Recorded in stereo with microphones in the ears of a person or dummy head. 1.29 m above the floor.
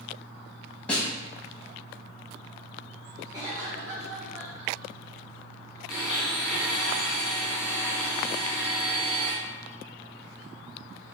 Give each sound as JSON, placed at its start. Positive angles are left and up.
{"t": 0.9, "sound": "a snare drum", "side_deg": 5, "distance_m": 1.0}
{"t": 3.3, "sound": "a cough", "side_deg": -15, "distance_m": 0.8}
{"t": 5.9, "sound": "a blender", "side_deg": 0, "distance_m": 1.7}